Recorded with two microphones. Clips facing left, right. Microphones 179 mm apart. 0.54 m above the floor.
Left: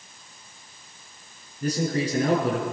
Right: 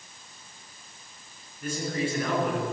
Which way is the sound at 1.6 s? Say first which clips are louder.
Left 4 dB; 40° left (ahead or behind).